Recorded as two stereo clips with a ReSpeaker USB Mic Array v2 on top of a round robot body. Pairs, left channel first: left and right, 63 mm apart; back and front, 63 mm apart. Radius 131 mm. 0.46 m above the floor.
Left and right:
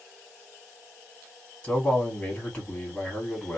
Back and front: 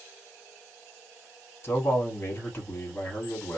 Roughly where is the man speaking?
Behind left.